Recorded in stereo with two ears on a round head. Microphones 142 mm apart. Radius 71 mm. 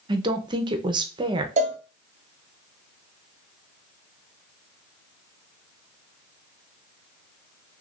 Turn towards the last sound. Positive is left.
turn(degrees=-45)  # may be behind; listen again after turning